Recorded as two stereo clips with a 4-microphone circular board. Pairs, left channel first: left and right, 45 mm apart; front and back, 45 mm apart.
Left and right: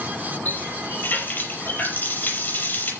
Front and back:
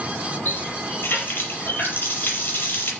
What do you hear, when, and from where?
0.5 s a running tap: 45° left, 5.5 m